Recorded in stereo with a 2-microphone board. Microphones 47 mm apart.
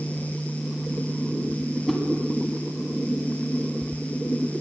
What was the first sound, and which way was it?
A whoosh, 5° left (ahead or behind).